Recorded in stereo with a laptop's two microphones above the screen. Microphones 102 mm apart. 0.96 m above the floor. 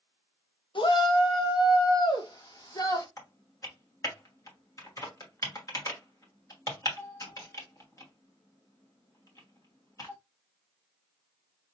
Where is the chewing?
No chewing in this recording.